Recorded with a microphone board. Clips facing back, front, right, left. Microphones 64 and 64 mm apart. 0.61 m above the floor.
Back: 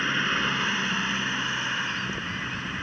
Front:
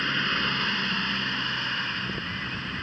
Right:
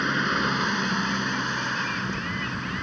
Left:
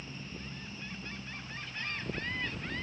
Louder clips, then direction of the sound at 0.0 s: Back 1 dB, right 22 dB; 95° right.